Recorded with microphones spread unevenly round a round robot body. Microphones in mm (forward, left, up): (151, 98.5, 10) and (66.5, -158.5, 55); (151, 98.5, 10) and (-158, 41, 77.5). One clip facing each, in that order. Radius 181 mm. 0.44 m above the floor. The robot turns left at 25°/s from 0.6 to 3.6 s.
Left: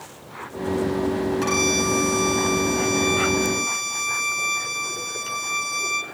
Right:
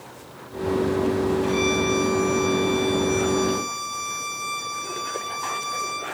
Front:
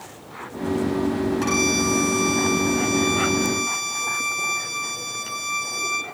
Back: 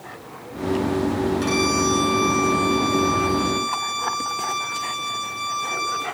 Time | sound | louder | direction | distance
1.4 | a violin | right 1 dB, back 1 dB | 80° left | 3.5 m